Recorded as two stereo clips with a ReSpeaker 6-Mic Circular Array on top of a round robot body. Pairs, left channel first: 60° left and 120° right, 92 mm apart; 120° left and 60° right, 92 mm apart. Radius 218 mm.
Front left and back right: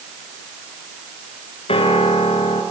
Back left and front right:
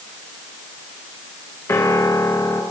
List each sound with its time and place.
1.7 s a piano: 60° left, 2.5 m